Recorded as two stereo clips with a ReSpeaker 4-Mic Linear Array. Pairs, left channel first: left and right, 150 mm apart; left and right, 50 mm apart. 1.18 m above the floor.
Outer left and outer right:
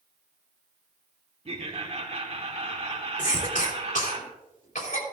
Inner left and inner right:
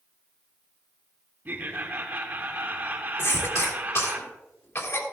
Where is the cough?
60° left (ahead or behind), 2.5 m.